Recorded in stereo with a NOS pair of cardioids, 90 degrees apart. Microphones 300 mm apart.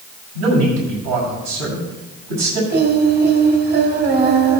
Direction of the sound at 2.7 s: 30° right.